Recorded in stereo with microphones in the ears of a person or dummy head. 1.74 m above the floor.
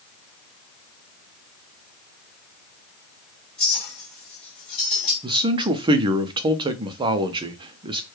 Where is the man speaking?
30° right (ahead or behind), 0.5 m.